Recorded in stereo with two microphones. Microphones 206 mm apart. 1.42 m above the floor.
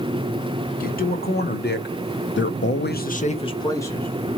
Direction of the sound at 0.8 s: 45° left (ahead or behind).